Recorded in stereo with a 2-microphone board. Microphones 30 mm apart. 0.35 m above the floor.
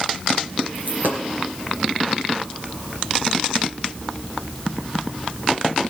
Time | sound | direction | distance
0.8 | a dropped coin | 70° right (ahead or behind) | 2.5 m